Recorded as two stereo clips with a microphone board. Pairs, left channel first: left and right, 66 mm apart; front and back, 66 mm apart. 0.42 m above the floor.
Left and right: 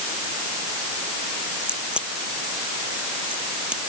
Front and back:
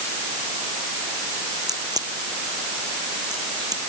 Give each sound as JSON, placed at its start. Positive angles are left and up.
{"t": 1.6, "sound": "a crack", "azimuth_deg": -165}